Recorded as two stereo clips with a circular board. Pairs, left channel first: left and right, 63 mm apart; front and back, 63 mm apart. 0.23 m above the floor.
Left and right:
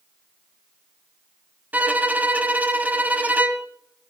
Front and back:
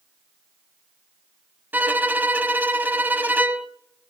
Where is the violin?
140° right, 1.0 m.